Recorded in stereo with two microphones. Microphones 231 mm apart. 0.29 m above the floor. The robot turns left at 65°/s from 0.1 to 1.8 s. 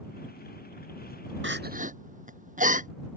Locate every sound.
1.4 s crying: 60° right (ahead or behind); by 2.9 s 35° right (ahead or behind)